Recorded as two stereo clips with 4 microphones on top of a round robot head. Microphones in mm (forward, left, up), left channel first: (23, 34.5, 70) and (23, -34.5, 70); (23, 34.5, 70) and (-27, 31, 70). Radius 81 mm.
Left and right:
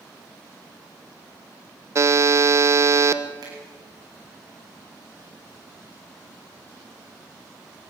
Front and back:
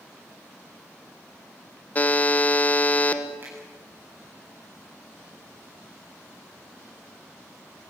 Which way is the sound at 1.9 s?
55° right.